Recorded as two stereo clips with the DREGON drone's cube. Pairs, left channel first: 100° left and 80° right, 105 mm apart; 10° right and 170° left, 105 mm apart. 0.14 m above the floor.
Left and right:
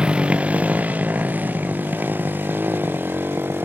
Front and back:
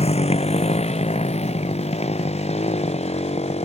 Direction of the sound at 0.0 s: Straight ahead.